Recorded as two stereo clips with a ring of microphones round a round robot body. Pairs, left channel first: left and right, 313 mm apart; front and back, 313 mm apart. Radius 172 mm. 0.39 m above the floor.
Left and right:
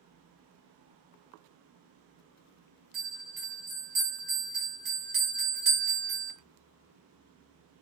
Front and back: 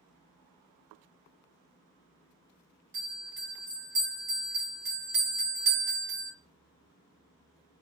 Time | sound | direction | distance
2.9 | a bell | 145° right | 1.9 m